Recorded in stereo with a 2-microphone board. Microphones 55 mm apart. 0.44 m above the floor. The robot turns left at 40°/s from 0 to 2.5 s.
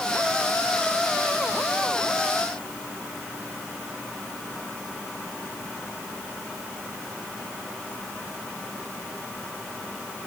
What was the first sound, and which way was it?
Only background noise.